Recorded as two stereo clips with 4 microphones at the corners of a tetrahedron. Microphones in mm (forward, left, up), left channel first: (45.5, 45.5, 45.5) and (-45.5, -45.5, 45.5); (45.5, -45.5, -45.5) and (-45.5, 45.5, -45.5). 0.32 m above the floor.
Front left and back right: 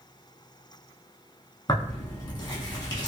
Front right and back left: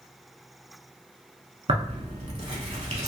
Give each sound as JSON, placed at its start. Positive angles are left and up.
{"t": 1.7, "sound": "tearing paper", "azimuth_deg": 100, "distance_m": 0.7}